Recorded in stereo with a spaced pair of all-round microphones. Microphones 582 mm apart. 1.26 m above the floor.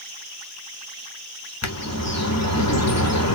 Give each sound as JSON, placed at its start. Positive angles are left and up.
{"t": 1.6, "sound": "a bird", "side_deg": 25, "distance_m": 1.0}